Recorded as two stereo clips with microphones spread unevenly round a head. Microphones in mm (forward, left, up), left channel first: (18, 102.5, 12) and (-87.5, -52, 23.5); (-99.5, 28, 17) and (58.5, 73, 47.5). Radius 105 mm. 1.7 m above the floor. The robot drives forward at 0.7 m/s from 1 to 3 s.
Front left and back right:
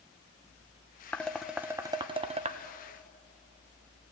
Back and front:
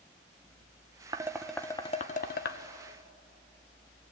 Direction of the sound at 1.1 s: 30° right.